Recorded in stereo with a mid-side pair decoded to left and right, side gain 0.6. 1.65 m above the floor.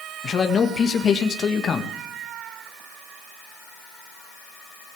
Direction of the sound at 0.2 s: 40° left.